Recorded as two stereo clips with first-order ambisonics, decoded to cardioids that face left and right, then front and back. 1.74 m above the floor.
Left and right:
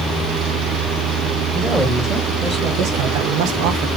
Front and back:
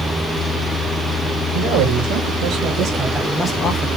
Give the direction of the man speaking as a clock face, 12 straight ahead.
6 o'clock.